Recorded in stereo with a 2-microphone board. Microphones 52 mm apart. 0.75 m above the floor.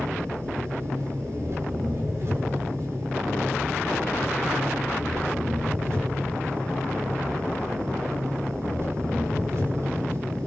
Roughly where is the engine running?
Right.